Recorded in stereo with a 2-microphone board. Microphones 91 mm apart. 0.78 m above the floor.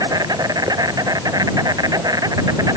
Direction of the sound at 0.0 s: 40° right (ahead or behind).